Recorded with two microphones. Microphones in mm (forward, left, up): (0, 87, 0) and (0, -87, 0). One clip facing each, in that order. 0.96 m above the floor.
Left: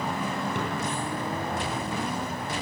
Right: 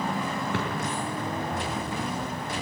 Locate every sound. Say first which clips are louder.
0.5 s a drawer: right 1 dB; 90° right, 8.5 m